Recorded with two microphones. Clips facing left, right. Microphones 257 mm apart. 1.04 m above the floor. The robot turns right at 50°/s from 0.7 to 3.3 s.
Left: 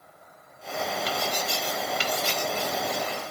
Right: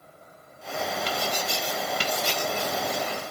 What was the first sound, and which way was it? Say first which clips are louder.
Writing: even; 5° left (ahead or behind).